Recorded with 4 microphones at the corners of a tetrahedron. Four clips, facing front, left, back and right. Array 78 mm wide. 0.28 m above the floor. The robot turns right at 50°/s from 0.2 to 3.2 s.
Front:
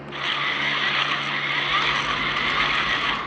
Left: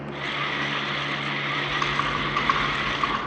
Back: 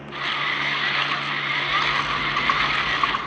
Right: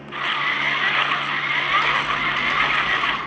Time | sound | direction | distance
1.7 | typing on a keyboard | 120° left | 3 m